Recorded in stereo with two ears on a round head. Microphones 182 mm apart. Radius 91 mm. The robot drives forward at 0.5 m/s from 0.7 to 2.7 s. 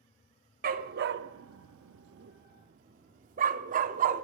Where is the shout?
No shout in this recording.